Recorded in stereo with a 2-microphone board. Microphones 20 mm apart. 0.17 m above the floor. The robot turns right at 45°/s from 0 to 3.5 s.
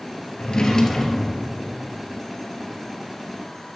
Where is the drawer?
135° left, 1.3 m; by 1.6 s 170° right, 1.3 m.